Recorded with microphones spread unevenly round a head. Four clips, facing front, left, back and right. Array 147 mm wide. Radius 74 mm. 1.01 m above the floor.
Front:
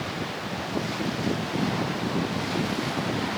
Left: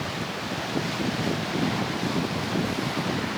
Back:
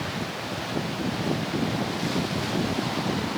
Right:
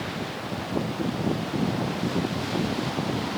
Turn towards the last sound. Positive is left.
No sound to turn to.